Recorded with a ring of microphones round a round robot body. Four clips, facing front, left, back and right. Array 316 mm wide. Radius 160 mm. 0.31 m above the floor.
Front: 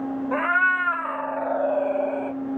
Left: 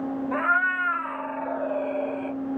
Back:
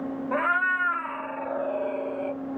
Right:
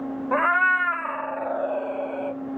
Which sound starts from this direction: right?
A cat meowing, at 0.3 s.